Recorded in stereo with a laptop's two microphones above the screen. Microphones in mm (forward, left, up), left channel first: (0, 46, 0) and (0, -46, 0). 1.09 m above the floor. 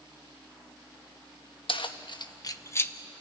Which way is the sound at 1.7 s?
70° left (ahead or behind).